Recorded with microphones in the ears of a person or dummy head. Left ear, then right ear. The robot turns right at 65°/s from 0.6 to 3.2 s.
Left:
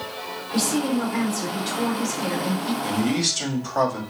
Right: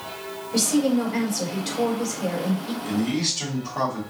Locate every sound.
0.5 s a woman speaking: 80° right, 3 m; by 2.7 s 60° left, 3 m
2.8 s a man speaking: 80° left, 1.9 m; by 4.0 s 75° left (ahead or behind), 1.9 m